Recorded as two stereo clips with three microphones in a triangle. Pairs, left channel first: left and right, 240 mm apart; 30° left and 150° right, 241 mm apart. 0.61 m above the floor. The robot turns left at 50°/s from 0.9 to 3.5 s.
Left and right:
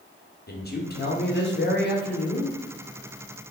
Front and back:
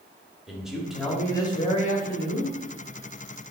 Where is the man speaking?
120° left, 0.8 m; by 2.6 s 40° left, 0.8 m.